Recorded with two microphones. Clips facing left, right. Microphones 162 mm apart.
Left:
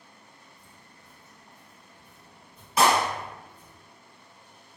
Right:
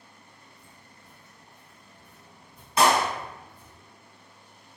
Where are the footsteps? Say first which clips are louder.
Right 1 dB; 40° left (ahead or behind), 1.3 m; by 3.8 s 40° right (ahead or behind), 1.4 m.